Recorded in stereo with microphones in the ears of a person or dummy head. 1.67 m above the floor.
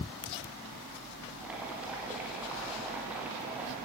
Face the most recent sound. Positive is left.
turn(degrees=-10)  # may be behind; listen again after turning